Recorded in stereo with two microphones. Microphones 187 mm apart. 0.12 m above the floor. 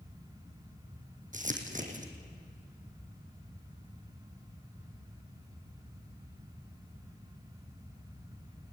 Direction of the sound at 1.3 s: 45° right (ahead or behind).